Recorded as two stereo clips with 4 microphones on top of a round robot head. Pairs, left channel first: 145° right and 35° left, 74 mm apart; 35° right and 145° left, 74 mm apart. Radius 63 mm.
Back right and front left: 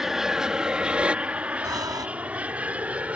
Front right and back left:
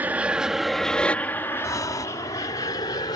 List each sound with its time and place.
0.0 s an aircraft: 115° left; by 3.2 s 35° right
1.6 s breathing: 5° left